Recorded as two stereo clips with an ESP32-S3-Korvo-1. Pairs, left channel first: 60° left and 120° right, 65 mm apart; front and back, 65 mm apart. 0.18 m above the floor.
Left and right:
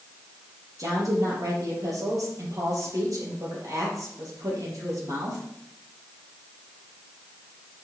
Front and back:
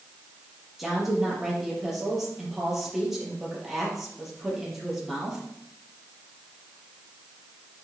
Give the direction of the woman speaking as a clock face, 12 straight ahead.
3 o'clock.